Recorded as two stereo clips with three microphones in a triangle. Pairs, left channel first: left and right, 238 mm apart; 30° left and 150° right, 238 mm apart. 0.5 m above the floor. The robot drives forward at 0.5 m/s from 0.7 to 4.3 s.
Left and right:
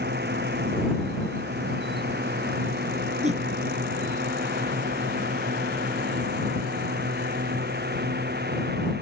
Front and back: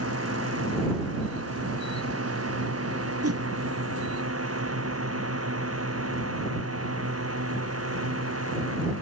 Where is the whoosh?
150° right.